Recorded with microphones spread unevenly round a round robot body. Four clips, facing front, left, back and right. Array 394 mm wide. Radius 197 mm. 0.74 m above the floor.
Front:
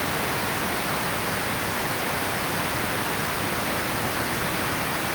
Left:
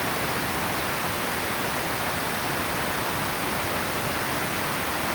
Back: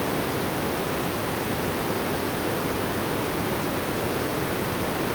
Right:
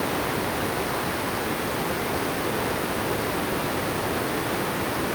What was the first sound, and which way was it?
Only background noise.